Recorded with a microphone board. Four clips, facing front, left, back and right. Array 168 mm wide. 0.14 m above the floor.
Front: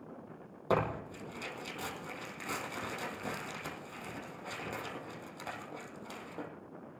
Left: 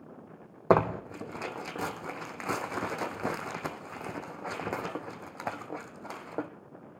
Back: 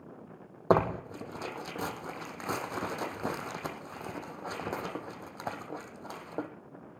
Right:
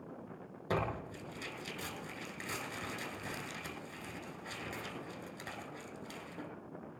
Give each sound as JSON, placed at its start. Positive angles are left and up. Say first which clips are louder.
{"t": 0.7, "sound": "tearing paper", "louder": "left 12 dB, back 6 dB", "azimuth_deg": 125, "distance_m": 1.6}